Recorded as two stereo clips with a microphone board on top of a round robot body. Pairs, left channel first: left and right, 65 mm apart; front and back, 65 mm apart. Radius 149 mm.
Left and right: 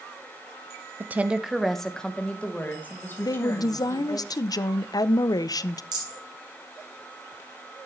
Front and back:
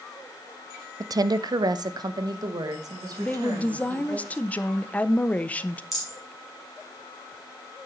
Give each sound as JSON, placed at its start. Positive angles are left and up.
{"t": 1.0, "sound": "a woman speaking", "azimuth_deg": -150, "distance_m": 0.6}
{"t": 3.2, "sound": "a woman speaking", "azimuth_deg": 70, "distance_m": 0.6}
{"t": 5.9, "sound": "a rattle", "azimuth_deg": -90, "distance_m": 5.5}